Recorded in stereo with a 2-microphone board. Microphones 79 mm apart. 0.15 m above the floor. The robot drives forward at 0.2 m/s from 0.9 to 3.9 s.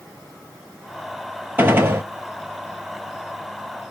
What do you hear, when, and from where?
1.6 s a gunshot: 25° right (ahead or behind), 0.7 m; by 2.0 s 30° right (ahead or behind), 0.6 m